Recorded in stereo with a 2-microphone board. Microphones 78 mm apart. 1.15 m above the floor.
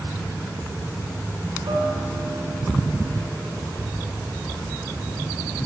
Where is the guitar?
80° right, 4.5 m.